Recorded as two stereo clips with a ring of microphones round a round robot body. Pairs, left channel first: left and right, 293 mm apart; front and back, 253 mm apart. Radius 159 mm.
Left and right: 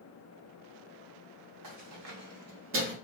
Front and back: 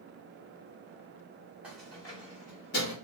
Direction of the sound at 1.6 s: 95° right.